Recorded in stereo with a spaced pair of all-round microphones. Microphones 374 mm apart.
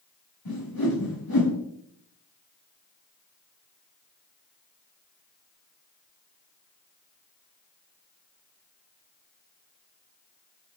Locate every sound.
0.5 s a whoosh: 70° left (ahead or behind), 4.5 m